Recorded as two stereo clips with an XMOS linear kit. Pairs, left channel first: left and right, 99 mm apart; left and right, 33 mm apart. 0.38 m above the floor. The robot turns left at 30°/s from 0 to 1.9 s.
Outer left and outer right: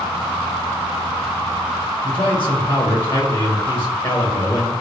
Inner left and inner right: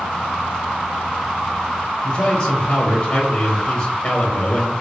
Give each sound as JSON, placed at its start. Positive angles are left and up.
{"t": 2.0, "sound": "a man speaking", "side_deg": 20, "distance_m": 0.9}